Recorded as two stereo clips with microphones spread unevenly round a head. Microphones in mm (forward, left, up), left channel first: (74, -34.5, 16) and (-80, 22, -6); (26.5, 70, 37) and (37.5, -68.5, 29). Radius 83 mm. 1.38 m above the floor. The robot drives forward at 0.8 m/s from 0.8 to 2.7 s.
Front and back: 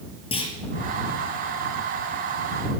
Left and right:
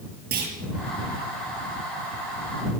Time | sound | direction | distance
0.3 | a clunk | 75° right | 7.5 m